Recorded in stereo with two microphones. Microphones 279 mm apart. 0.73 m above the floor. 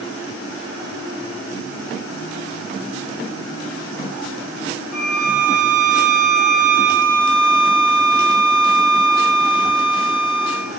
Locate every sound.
4.9 s a violin: 60° left (ahead or behind), 2.5 m